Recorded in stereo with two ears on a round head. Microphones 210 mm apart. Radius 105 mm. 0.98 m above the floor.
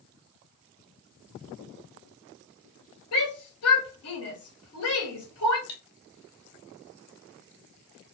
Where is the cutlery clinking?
65° left (ahead or behind), 1.0 m.